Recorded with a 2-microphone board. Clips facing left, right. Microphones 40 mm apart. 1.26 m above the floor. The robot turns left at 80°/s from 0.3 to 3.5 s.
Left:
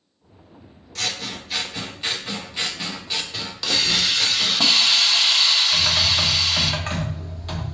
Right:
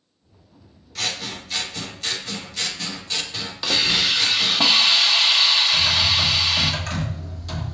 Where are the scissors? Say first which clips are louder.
Even; 5° right (ahead or behind), 0.5 m; by 4.6 s centre (ahead or behind), 0.5 m.